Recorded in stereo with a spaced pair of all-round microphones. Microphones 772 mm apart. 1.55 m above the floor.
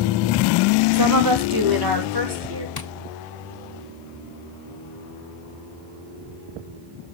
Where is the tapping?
30° left (ahead or behind), 0.7 m.